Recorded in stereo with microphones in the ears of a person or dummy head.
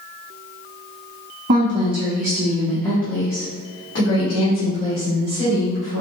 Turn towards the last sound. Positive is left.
turn(degrees=75)  # may be behind; listen again after turning